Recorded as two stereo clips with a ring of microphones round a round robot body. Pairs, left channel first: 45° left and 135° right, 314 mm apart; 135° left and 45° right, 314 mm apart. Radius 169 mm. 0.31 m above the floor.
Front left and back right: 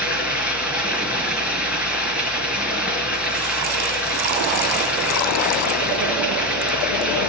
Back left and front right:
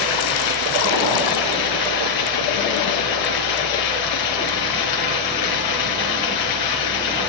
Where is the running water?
140° left, 5 m.